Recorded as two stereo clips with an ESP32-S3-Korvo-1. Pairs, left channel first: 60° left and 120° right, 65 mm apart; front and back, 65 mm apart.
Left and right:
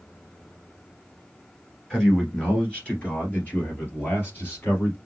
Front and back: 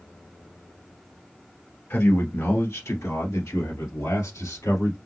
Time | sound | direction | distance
1.9 | a man speaking | 20° right | 1.7 m